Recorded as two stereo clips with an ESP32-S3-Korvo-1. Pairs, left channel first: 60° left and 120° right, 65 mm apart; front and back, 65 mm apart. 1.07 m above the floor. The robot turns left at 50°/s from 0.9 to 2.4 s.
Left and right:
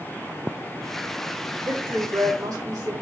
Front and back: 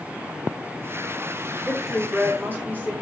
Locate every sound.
1.6 s a woman speaking: 85° right, 3.5 m; by 2.9 s 125° right, 3.5 m